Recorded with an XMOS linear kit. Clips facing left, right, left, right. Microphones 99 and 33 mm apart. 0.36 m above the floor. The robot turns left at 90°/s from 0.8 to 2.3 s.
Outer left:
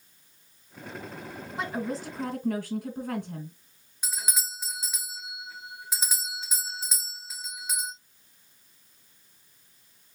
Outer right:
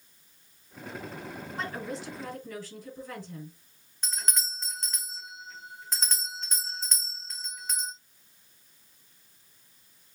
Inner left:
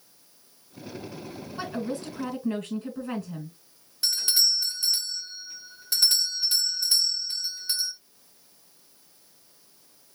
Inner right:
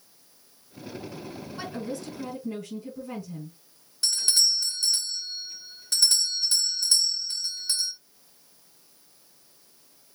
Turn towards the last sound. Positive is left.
turn(degrees=5)  # may be behind; listen again after turning